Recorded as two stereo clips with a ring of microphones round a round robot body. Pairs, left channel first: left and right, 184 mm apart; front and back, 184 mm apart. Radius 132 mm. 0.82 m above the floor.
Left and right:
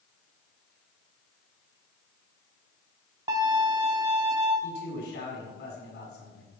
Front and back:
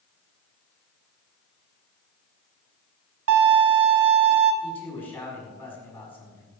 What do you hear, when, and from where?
3.3 s a violin: 165° right, 1.0 m
4.6 s a man speaking: 80° left, 7 m